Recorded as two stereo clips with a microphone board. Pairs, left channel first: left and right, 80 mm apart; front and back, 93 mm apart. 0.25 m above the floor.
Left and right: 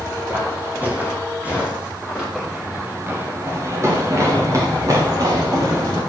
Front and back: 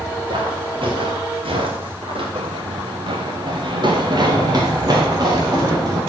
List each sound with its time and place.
0.3 s footsteps: 155° right, 4 m; by 2.2 s 170° right, 5 m
2.4 s running footsteps: 175° right, 2.0 m; by 6.0 s 130° right, 5.5 m